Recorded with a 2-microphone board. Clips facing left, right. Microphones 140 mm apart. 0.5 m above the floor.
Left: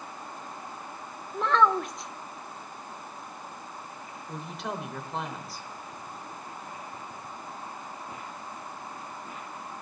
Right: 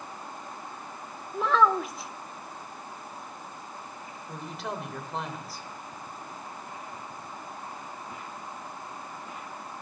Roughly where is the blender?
I don't hear a blender.